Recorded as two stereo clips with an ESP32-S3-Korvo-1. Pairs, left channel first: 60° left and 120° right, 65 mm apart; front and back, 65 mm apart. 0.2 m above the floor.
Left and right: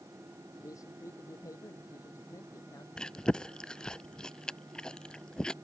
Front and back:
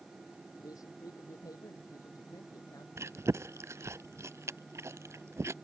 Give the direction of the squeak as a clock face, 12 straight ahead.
No squeak in this recording.